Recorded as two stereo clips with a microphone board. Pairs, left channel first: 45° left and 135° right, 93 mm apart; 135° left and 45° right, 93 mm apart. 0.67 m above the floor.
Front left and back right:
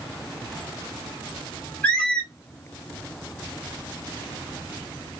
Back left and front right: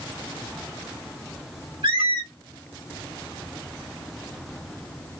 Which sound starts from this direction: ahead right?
A squeak, at 1.8 s.